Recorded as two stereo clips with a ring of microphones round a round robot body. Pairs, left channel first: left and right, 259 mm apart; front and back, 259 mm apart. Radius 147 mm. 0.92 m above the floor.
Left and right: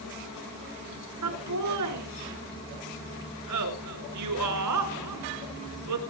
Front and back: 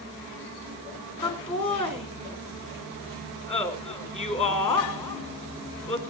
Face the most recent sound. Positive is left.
turn(degrees=-65)